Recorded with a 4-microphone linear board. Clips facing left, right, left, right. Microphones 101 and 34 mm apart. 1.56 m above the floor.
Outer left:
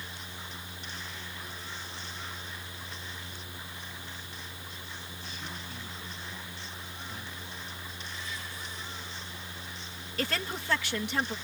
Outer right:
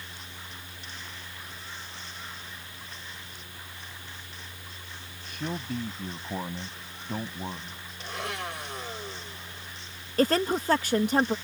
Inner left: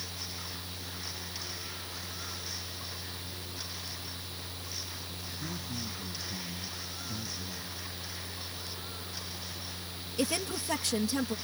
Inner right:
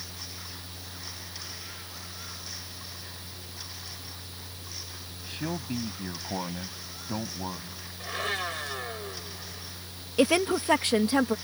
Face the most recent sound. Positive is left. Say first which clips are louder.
# outer right 10 dB, inner right 9 dB
turn(degrees=-40)  # may be behind; listen again after turning